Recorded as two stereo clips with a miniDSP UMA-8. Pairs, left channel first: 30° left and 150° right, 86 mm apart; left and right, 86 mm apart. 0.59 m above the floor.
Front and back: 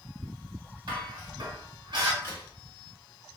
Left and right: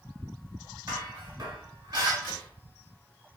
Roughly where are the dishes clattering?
Behind right.